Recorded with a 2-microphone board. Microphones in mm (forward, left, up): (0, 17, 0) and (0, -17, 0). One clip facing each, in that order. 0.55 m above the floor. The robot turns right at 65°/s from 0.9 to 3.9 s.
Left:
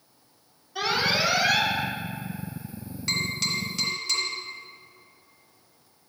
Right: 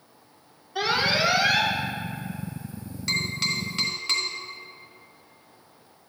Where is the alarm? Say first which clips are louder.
Right 1 dB; 15° right (ahead or behind), 1.3 m; by 1.7 s 25° right (ahead or behind), 1.3 m.